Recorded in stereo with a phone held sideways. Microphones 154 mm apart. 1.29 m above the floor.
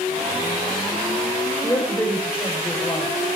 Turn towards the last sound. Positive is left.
turn(degrees=15)  # may be behind; listen again after turning